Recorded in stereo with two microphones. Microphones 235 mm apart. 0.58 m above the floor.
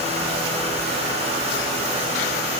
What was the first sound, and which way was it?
Only background noise.